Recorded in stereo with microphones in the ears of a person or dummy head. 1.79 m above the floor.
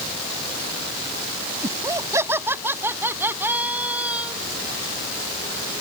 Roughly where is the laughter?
Centre.